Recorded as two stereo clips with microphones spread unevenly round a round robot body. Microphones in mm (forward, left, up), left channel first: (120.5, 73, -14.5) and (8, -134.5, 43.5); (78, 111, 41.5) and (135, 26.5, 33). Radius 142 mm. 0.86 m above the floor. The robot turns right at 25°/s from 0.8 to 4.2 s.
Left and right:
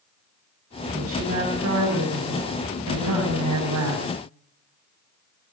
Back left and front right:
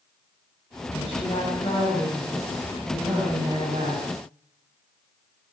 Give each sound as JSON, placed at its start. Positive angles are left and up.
{"t": 0.9, "sound": "a woman speaking", "azimuth_deg": 175, "distance_m": 8.5}